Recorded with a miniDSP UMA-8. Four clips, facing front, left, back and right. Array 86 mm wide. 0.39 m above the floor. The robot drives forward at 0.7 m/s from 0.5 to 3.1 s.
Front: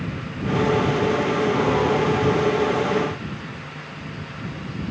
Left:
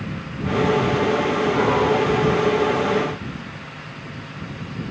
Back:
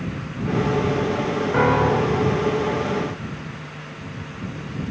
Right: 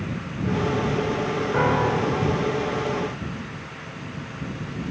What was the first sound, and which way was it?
A piano, 160° right.